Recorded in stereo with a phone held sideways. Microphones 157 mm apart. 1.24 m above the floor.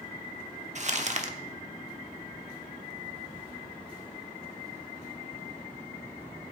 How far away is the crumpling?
About 1.0 m.